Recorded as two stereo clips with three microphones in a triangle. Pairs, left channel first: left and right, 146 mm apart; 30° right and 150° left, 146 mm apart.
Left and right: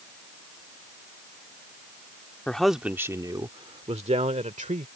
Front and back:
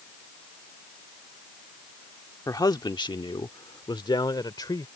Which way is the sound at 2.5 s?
15° left.